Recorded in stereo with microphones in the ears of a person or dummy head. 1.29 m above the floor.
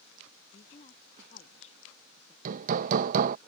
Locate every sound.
0.5 s a woman speaking: 35° left (ahead or behind)
2.5 s hammering: 45° right (ahead or behind)